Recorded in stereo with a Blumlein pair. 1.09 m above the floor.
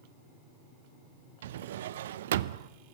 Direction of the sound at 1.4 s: 60° right.